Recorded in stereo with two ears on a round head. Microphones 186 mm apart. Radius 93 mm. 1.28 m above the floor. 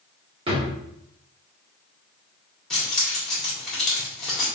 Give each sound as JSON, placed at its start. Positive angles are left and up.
{"t": 0.5, "sound": "a drawer", "side_deg": -25, "distance_m": 1.5}
{"t": 2.7, "sound": "keys jangling", "side_deg": 5, "distance_m": 2.0}